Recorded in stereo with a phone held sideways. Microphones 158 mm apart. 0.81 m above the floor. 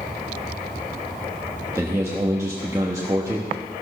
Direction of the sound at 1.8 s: 20° right (ahead or behind).